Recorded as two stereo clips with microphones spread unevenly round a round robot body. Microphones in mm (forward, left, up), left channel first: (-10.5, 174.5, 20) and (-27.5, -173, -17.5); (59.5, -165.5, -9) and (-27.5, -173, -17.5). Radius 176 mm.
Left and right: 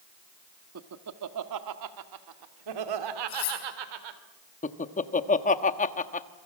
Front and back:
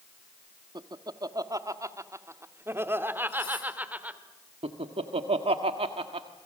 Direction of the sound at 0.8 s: 140° right.